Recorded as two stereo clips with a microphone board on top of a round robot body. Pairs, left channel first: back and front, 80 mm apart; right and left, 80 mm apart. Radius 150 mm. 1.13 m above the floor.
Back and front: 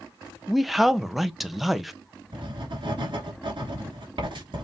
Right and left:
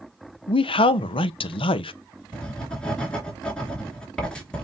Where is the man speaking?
85° right, 0.5 m.